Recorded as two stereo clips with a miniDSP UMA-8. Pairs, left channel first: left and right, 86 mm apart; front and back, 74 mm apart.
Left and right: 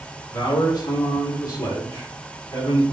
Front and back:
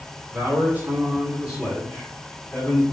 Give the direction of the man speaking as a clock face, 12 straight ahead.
8 o'clock.